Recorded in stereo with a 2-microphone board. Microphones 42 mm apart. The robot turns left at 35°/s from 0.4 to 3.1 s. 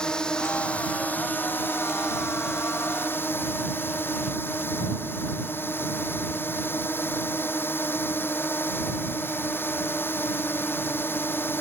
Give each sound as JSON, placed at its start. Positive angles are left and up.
{"t": 0.0, "sound": "a drone", "azimuth_deg": 160}